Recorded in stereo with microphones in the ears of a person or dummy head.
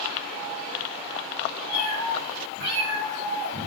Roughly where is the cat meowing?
Right.